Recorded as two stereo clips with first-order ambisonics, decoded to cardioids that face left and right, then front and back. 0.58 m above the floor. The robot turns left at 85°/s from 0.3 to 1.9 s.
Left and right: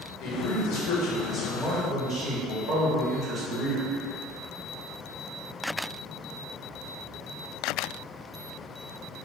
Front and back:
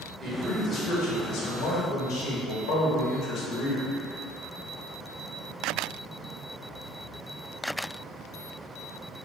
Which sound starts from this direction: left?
A man speaking, at 0.2 s.